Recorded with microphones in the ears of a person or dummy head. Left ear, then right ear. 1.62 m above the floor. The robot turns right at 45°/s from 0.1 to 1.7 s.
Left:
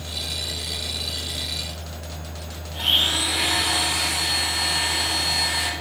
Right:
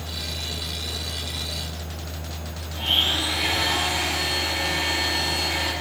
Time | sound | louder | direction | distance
2.7 | a blender | left 2 dB | 65° left (ahead or behind) | 1.3 m